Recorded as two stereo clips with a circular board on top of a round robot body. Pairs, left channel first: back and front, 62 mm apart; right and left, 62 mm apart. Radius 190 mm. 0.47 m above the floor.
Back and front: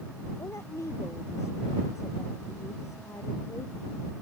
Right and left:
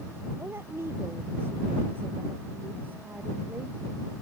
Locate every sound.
0.4 s a woman speaking: 140° left; by 3.8 s 155° left